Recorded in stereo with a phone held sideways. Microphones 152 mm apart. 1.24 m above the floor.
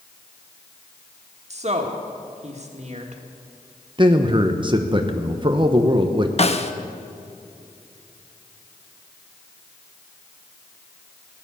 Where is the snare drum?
45° left (ahead or behind), 0.8 m.